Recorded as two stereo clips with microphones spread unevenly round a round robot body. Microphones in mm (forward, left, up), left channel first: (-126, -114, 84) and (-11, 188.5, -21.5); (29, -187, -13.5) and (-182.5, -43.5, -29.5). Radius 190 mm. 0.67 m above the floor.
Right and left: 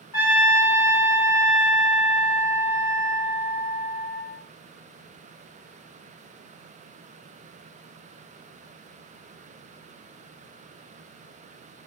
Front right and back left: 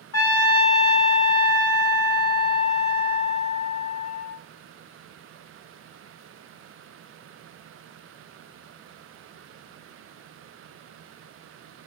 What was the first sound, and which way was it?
A trumpet, 60° right.